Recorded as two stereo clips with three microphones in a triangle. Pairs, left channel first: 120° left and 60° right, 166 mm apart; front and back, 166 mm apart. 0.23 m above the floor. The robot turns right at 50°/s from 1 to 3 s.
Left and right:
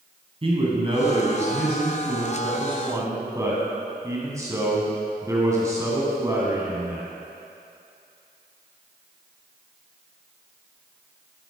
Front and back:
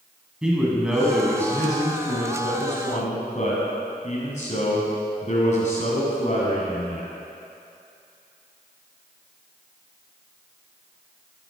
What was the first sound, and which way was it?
A man speaking, 95° right.